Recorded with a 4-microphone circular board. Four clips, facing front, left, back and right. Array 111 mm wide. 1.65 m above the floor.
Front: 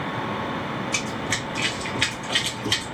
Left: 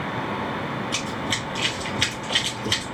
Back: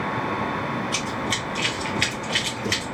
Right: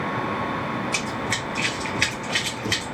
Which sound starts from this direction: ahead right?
Running footsteps, at 0.9 s.